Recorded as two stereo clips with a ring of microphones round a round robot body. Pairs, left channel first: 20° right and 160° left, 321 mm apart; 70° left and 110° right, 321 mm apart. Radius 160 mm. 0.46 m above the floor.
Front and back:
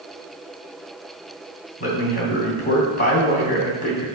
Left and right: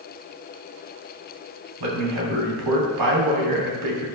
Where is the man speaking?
85° right, 3 m.